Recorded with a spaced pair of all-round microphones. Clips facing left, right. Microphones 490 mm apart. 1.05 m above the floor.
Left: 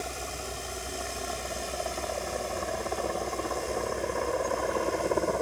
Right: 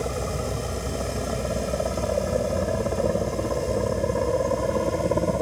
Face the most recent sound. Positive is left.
turn(degrees=-55)  # may be behind; listen again after turning